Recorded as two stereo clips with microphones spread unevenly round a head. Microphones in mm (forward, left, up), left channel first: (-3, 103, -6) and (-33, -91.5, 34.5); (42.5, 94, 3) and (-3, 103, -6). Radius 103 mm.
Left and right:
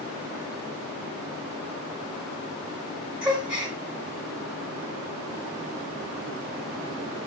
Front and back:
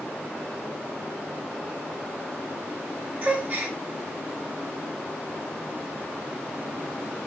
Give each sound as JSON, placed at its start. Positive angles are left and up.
{"t": 3.2, "sound": "a gasp", "azimuth_deg": -160, "distance_m": 1.7}